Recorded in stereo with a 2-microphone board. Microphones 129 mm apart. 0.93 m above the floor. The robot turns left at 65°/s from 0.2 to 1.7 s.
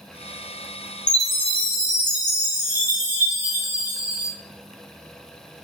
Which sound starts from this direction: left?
A chime, at 1.1 s.